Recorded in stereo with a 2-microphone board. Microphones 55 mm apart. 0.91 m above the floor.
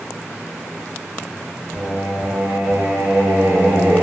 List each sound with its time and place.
1.7 s singing: 30° right (ahead or behind), 0.7 m